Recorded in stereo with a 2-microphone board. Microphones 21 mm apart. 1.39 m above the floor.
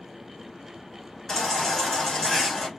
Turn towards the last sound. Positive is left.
turn(degrees=20)  # may be behind; listen again after turning